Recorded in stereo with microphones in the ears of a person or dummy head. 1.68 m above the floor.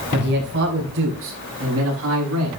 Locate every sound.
0.1 s a man speaking: 55° right (ahead or behind), 5 m; by 2.5 s 80° right, 6 m